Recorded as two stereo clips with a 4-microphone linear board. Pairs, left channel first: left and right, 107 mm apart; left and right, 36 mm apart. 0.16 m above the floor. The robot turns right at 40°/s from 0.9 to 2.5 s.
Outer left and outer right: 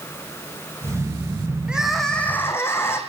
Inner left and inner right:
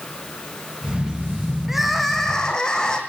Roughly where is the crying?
Ahead.